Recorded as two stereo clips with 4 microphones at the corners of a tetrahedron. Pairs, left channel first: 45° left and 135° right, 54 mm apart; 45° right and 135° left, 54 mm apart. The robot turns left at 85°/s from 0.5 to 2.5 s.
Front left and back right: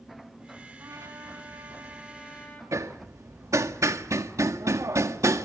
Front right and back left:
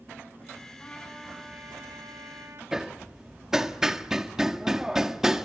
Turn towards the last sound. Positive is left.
turn(degrees=-145)